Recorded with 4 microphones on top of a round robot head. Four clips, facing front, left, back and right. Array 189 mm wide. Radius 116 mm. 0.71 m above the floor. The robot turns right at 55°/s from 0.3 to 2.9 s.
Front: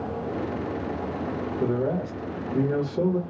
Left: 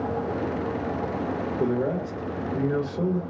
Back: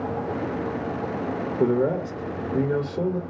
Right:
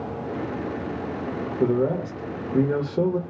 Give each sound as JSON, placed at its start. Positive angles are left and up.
{"t": 1.6, "sound": "a man speaking", "azimuth_deg": -170, "distance_m": 1.4}